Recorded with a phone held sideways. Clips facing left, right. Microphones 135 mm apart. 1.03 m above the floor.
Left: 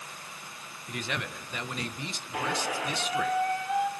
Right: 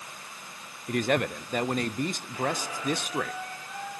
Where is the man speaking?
50° right (ahead or behind), 0.6 m.